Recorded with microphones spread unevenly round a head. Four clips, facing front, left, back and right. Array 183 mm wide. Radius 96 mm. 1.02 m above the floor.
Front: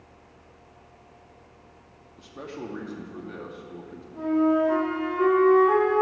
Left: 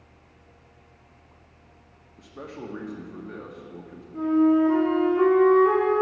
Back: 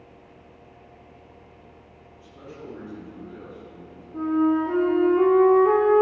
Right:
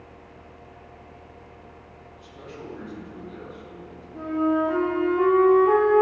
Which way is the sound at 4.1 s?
170° left.